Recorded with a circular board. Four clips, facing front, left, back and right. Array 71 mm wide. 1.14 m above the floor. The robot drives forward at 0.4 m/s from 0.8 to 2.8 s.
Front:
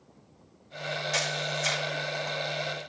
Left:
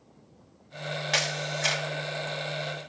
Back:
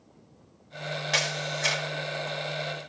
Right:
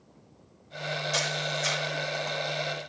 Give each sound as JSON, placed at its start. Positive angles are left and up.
{"t": 1.1, "sound": "a camera shutter", "azimuth_deg": 120, "distance_m": 1.6}